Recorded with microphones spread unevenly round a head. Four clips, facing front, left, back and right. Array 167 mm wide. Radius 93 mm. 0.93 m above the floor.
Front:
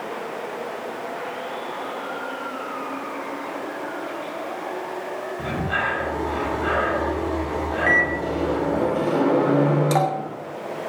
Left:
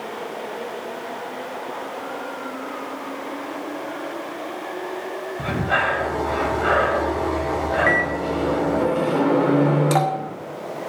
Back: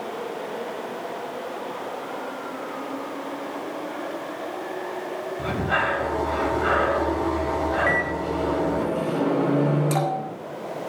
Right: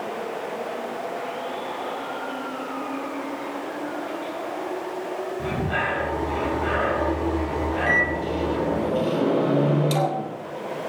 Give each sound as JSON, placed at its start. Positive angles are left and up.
{"t": 5.4, "sound": "breathing", "azimuth_deg": 100, "distance_m": 4.0}
{"t": 7.9, "sound": "a microwave", "azimuth_deg": 55, "distance_m": 2.5}